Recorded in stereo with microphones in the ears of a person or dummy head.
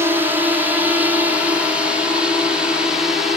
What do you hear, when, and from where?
0.0 s a drone: 10° right (ahead or behind); by 3.4 s centre (ahead or behind)